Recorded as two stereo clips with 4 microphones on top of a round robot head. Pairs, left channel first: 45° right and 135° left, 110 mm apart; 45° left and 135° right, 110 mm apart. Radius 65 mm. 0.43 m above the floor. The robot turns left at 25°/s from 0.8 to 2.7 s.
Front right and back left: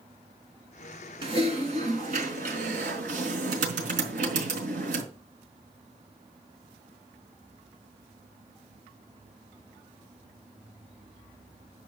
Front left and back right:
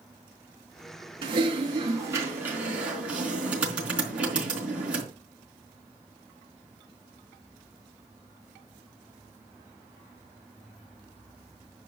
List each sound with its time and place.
1.2 s typing on a keyboard: straight behind, 4 m; by 5.0 s 145° left, 4 m